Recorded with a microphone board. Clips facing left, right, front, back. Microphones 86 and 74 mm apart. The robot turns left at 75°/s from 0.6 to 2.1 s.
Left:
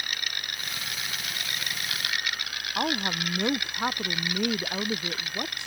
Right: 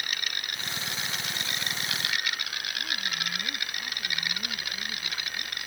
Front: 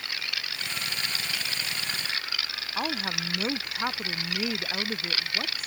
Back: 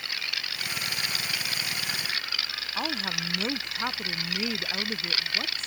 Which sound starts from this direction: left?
A woman speaking, at 2.8 s.